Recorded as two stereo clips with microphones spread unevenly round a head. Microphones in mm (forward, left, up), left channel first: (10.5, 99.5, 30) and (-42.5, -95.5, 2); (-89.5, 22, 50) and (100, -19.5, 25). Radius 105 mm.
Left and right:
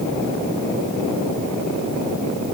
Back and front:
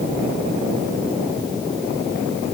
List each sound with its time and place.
Only background noise.